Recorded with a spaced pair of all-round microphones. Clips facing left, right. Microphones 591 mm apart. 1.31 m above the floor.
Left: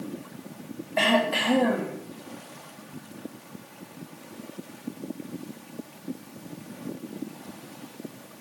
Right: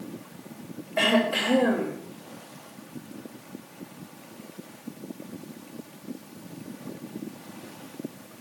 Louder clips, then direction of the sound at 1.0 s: Right 1 dB; 20° left (ahead or behind).